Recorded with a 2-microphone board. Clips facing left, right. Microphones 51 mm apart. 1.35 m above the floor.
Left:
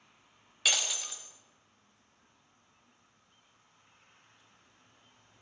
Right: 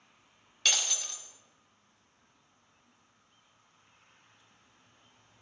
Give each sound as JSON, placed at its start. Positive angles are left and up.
{"t": 0.7, "sound": "breaking glass", "side_deg": 5, "distance_m": 0.9}